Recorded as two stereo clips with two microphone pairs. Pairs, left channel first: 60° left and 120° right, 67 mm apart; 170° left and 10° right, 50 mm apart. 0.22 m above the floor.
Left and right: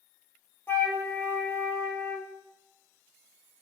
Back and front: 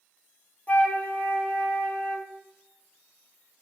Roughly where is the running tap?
I don't hear a running tap.